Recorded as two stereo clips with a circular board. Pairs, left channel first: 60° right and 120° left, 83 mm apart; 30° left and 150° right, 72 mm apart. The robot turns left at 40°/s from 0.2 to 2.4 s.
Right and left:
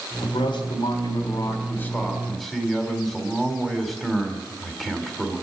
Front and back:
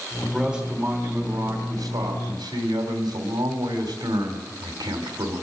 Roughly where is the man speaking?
Ahead right.